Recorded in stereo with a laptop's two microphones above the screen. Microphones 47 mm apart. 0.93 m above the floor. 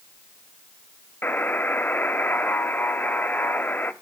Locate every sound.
1.2 s a buzzer: 40° left (ahead or behind), 1.1 m